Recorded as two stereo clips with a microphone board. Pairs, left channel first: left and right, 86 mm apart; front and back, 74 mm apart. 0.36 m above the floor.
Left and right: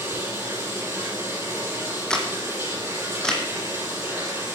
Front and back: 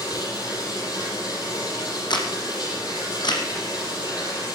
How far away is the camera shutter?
About 2 m.